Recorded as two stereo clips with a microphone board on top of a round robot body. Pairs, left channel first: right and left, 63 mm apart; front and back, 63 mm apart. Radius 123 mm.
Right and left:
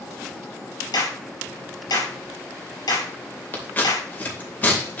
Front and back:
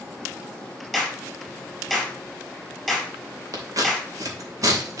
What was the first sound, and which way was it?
A clap, 95° right.